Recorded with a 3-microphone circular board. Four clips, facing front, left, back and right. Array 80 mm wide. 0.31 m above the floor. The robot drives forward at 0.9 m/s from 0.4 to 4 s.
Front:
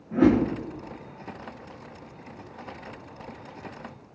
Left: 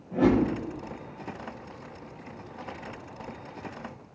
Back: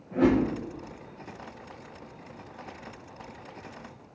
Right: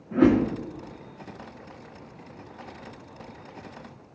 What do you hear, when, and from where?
0.1 s a whoosh: 65° right, 3.5 m